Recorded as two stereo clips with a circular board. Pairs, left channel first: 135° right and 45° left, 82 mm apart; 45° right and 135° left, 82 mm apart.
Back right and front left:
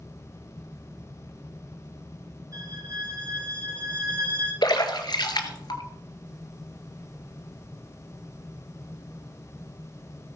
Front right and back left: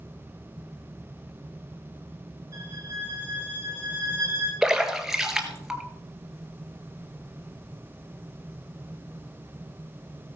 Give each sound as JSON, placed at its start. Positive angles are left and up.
{"t": 2.5, "sound": "a violin", "azimuth_deg": 90, "distance_m": 5.0}
{"t": 4.6, "sound": "a splash", "azimuth_deg": -140, "distance_m": 1.8}